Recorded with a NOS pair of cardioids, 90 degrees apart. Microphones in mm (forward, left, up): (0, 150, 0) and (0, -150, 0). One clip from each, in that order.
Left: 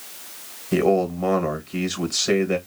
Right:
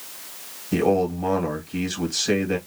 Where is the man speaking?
25° left, 1.3 m.